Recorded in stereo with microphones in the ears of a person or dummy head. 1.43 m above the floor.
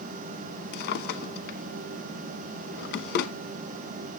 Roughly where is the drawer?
Left.